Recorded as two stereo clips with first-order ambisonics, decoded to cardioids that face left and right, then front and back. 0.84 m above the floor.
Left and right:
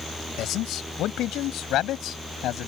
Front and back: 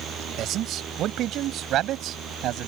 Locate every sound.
0.4 s a man speaking: 130° left; by 2.7 s 135° left